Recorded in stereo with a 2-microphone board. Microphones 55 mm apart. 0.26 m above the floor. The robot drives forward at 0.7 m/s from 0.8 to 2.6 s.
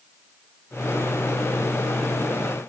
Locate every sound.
Only background noise.